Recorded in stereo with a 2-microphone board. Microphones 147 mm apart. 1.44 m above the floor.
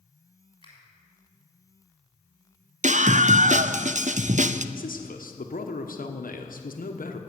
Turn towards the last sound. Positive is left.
turn(degrees=75)  # may be behind; listen again after turning